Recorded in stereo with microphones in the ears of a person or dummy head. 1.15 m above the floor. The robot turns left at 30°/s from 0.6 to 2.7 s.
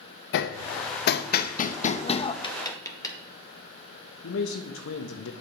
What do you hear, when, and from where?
0.3 s hammering: 70° left (ahead or behind), 0.5 m; by 2.3 s 35° left (ahead or behind), 0.5 m
2.4 s tapping: 30° left (ahead or behind), 1.3 m; by 3.2 s 25° left (ahead or behind), 1.3 m
4.2 s a man speaking: 60° left (ahead or behind), 1.0 m